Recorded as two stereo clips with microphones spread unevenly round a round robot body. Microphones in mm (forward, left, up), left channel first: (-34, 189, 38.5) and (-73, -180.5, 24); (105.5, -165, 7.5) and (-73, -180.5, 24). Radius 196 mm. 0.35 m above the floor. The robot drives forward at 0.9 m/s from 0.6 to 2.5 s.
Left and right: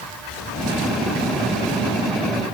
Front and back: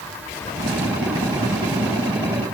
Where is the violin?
I don't hear a violin.